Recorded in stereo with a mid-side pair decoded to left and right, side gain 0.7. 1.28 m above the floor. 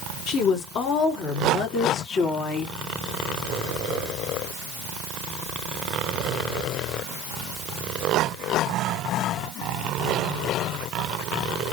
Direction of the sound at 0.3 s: 55° left.